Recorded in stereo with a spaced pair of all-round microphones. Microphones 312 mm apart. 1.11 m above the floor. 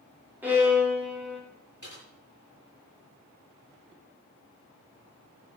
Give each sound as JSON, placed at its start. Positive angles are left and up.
{"t": 0.4, "sound": "a violin", "side_deg": -5, "distance_m": 3.5}
{"t": 1.8, "sound": "typing on a keyboard", "side_deg": -70, "distance_m": 7.0}